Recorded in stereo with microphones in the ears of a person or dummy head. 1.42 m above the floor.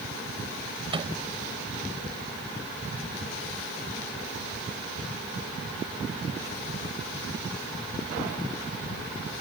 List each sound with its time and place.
0.9 s a microwave: 30° right (ahead or behind)